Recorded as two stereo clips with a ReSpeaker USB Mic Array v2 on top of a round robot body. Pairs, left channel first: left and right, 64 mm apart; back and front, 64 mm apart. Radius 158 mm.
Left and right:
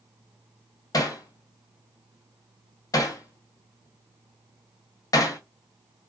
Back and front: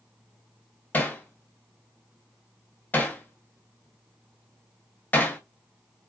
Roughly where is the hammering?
Behind left.